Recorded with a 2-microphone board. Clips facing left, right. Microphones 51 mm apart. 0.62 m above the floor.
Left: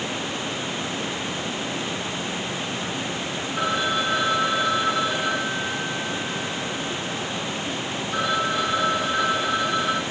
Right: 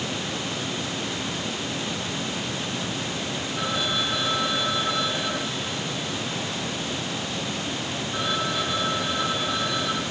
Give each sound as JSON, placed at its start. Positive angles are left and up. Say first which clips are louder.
{"t": 3.6, "sound": "a phone ringing", "louder": "left 4 dB", "side_deg": 35, "distance_m": 6.0}